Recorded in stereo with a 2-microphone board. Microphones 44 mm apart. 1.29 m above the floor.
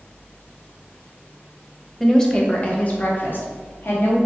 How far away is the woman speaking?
About 0.9 m.